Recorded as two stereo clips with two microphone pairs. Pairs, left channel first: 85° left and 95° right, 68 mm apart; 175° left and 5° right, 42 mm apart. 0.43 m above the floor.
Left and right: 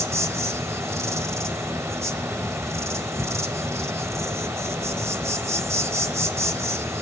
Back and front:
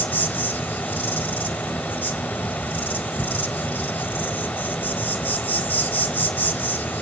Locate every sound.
0.0 s an insect: 140° right, 1.4 m